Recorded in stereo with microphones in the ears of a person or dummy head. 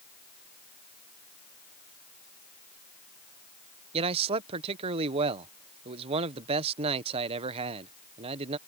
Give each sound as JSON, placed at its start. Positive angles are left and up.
{"t": 3.9, "sound": "a man speaking", "side_deg": -35}